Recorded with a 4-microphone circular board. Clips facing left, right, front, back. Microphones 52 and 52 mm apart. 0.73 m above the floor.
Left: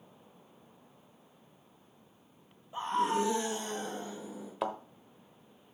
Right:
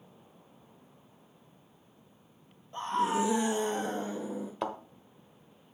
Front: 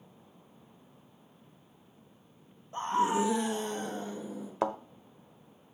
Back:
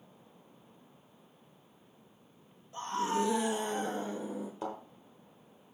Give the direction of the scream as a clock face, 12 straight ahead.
11 o'clock.